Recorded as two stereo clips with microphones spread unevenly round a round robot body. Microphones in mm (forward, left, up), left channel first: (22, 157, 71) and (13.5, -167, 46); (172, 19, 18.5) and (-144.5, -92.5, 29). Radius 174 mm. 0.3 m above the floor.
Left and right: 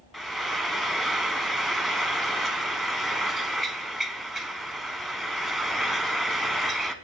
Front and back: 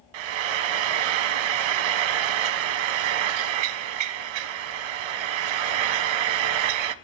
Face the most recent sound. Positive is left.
turn(degrees=180)